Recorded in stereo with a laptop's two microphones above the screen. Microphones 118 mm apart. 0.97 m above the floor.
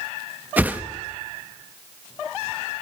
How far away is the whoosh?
About 0.9 m.